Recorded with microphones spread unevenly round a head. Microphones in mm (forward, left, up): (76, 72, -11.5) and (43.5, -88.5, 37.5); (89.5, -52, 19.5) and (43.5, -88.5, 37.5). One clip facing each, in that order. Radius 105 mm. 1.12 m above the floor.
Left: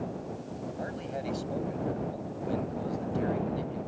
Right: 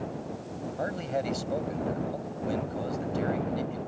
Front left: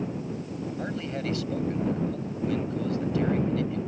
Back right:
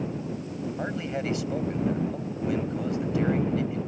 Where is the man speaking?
75° right.